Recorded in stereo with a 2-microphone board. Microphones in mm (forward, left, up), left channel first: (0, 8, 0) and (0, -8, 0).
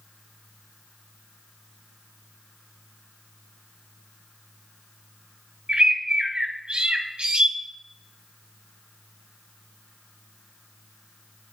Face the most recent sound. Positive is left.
turn(degrees=-80)